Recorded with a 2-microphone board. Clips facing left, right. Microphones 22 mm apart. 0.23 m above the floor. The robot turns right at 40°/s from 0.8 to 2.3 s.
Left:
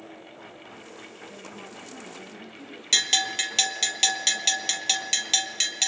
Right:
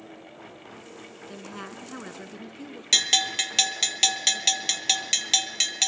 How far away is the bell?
About 1.3 m.